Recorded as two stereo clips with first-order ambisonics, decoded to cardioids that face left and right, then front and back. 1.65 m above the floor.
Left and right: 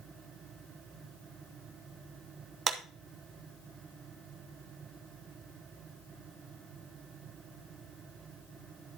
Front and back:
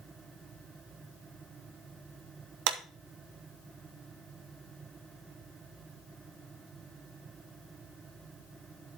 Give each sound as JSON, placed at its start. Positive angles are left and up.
{"t": 2.7, "sound": "a clap", "azimuth_deg": -160, "distance_m": 0.9}